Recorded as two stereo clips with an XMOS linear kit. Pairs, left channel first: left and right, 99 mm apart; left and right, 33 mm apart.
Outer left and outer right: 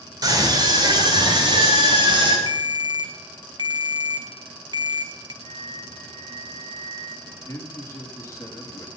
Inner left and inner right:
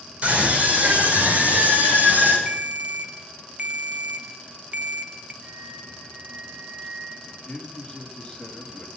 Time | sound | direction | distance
0.2 | a scream | 40° right (ahead or behind) | 6 m
2.5 | a ringtone | 45° right (ahead or behind) | 1.0 m
5.4 | a flute | 80° right | 6.5 m
7.2 | a man speaking | 30° left (ahead or behind) | 2.5 m